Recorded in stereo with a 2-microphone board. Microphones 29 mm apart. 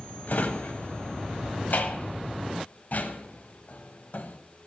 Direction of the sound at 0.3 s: 60° left (ahead or behind).